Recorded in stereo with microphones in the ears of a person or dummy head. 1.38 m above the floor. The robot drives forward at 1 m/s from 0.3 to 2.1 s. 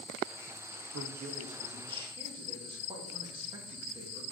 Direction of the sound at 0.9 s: 60° right (ahead or behind).